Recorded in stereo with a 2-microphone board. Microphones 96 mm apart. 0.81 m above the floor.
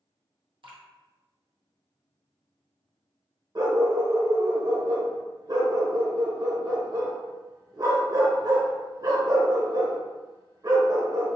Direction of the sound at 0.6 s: 60° right (ahead or behind).